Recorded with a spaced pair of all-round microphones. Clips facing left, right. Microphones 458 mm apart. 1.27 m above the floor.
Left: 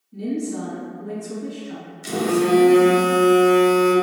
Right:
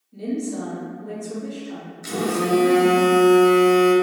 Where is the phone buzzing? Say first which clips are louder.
Left 4 dB; 50° left (ahead or behind), 0.7 m.